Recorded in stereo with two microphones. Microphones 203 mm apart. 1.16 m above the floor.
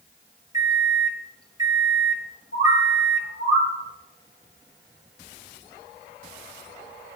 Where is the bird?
85° left, 6 m.